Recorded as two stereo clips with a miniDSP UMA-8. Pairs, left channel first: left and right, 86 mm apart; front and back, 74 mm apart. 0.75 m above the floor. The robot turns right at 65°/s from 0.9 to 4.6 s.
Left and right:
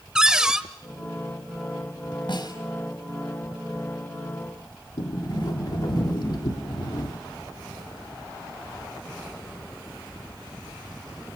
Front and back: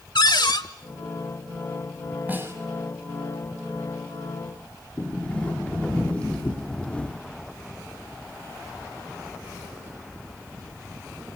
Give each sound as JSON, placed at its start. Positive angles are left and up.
{"t": 0.1, "sound": "a cupboard door", "azimuth_deg": -10, "distance_m": 1.1}
{"t": 2.3, "sound": "a snare drum", "azimuth_deg": 115, "distance_m": 5.5}
{"t": 5.0, "sound": "a sliding door", "azimuth_deg": 70, "distance_m": 2.0}